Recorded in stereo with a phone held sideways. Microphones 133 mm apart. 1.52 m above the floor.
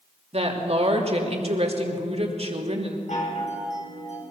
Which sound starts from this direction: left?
A chime, at 3.1 s.